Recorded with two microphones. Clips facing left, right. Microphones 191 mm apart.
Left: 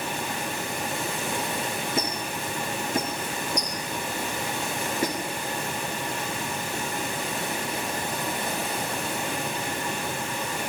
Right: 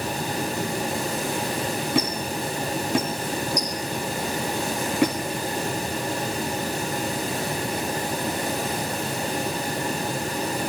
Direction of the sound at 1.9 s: 75° right (ahead or behind).